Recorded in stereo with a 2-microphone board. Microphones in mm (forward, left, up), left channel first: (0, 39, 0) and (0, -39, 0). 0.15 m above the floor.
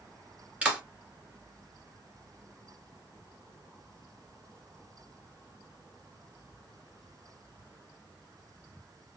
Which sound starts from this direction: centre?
A clap, at 0.6 s.